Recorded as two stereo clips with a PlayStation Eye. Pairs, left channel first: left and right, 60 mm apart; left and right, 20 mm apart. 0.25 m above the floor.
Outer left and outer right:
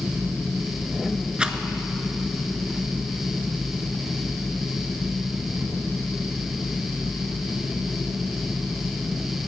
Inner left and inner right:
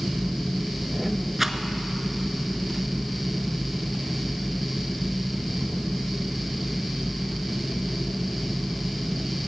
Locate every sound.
1.4 s a rattle: 15° right (ahead or behind), 0.6 m